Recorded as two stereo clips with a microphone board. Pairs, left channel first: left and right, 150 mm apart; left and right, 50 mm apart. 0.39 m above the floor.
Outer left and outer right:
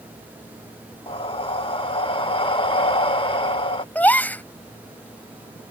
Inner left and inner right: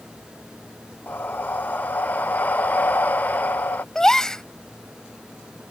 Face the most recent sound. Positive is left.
turn(degrees=10)  # may be behind; listen again after turning